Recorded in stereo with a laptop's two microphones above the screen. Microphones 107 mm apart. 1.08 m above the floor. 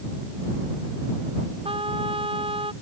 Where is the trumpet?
65° right (ahead or behind).